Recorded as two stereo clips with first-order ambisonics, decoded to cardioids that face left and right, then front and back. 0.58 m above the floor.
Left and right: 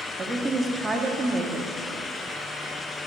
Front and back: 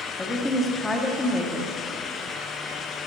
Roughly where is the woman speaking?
Ahead right.